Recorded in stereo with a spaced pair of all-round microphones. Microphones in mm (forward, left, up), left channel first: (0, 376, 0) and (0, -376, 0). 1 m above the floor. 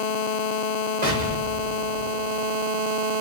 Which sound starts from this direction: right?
An explosion, at 1.0 s.